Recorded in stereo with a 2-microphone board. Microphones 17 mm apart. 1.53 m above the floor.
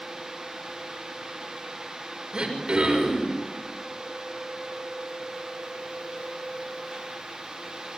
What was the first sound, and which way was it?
Throat clearing, 55° right (ahead or behind).